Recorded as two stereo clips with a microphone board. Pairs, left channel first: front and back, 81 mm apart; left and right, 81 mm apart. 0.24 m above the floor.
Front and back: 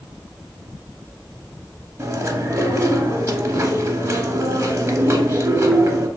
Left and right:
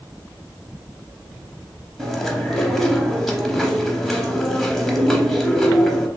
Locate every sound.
2.0 s chewing: 175° left, 0.6 m